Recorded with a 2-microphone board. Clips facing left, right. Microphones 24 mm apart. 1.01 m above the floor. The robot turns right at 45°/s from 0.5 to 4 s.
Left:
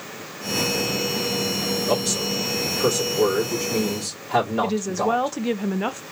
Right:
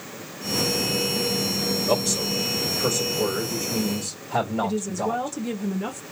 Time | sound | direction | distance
1.9 | a man speaking | 5° left | 2.5 m
4.6 | a woman speaking | 40° left (ahead or behind) | 0.6 m